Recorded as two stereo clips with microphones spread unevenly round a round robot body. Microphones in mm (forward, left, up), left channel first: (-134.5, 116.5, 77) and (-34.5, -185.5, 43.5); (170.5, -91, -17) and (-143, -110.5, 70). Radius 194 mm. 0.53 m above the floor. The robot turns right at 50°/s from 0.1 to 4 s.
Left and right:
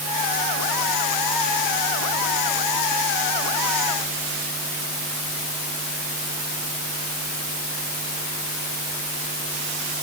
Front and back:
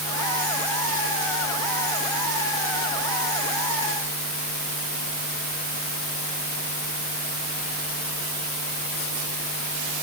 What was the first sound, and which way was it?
Only background noise.